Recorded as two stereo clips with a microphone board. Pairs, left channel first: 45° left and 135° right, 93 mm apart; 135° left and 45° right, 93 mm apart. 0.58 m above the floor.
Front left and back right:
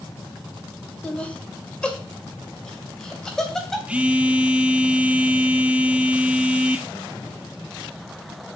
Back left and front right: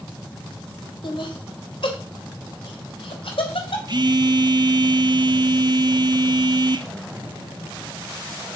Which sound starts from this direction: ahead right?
A phone buzzing, at 3.9 s.